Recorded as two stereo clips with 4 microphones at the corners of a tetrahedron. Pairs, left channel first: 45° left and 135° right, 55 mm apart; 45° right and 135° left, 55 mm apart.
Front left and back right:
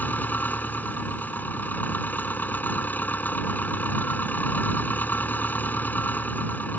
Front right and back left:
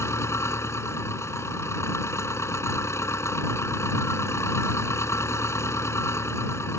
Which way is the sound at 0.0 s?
10° right.